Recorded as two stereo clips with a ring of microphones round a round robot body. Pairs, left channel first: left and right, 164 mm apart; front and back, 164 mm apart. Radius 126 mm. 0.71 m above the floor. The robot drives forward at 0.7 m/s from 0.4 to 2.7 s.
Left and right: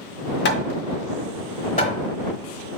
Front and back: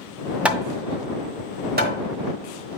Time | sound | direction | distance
0.5 | hammering | 95° left | 0.6 m